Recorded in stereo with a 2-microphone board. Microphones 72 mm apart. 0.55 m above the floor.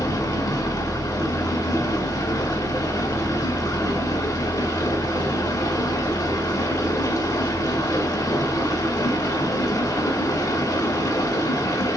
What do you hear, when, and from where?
0.0 s running water: 55° left (ahead or behind), 0.7 m